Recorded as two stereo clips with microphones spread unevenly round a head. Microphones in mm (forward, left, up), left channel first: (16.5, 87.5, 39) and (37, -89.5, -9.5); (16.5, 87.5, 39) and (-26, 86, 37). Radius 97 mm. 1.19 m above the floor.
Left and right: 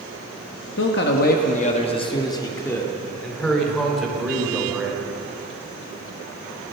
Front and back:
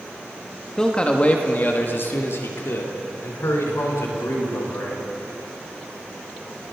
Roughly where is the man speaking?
Left.